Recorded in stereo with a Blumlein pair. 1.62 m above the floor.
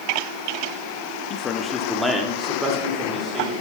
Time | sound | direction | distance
1.3 | a man speaking | 35° left | 1.0 m